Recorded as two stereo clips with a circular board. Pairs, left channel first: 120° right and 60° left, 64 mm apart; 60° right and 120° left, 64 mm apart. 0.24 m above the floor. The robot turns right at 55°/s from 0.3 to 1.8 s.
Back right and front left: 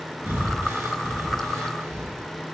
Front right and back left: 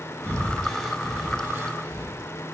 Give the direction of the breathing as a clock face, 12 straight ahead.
12 o'clock.